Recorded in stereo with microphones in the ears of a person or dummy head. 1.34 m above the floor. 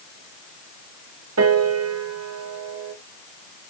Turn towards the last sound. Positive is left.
turn(degrees=-80)